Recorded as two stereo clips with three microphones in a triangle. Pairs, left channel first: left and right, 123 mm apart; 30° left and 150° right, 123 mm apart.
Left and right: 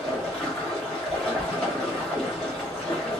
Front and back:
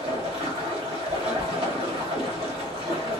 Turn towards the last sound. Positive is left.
turn(degrees=170)